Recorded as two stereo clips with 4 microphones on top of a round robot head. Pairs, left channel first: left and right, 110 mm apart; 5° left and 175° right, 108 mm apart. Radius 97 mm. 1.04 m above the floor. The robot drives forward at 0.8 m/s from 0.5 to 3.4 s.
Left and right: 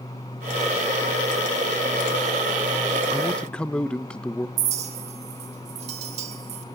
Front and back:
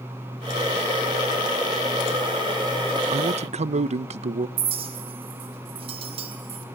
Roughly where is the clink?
Behind right.